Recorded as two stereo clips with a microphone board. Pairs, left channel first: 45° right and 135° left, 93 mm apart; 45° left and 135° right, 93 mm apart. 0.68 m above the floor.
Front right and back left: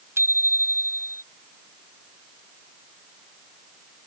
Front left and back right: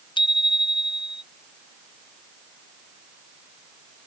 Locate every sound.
0.2 s a bicycle bell: 70° left; by 1.2 s 75° left